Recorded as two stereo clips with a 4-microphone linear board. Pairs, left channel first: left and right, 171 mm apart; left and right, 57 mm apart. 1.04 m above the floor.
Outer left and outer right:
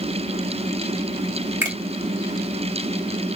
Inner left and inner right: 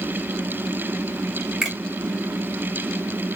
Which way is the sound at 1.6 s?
10° right (ahead or behind).